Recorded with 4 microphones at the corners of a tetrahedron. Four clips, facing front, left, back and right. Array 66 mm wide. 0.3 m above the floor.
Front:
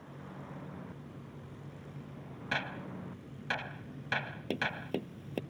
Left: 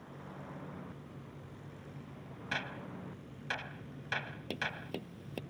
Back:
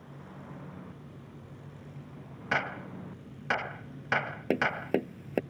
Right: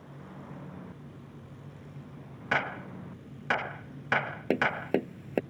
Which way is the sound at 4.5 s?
130° right.